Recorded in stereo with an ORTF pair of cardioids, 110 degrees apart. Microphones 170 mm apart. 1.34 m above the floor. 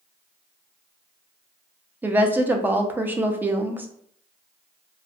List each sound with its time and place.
2.0 s a woman speaking: 10° right, 0.6 m